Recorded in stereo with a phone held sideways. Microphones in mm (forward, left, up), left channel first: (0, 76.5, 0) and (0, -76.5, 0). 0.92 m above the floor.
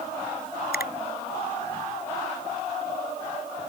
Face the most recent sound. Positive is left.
turn(degrees=90)